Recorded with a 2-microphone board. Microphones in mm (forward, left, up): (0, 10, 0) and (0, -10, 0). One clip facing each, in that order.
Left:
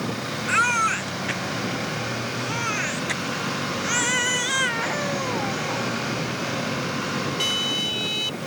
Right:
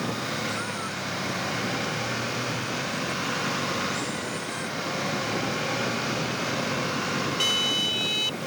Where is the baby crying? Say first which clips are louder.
Left 10 dB; 75° left (ahead or behind).